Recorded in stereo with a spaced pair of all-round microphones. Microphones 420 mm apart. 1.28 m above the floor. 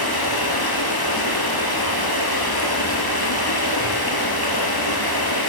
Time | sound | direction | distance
0.0 | running water | 60° left (ahead or behind) | 5.5 m